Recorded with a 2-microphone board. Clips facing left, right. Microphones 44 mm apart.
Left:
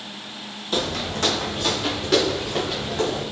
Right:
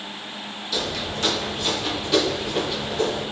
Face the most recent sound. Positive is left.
turn(degrees=50)  # may be behind; listen again after turning